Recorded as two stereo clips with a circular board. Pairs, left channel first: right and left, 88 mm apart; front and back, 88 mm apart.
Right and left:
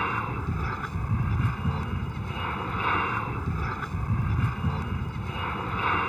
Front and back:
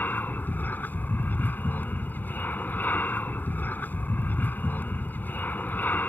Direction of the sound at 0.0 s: 5° right.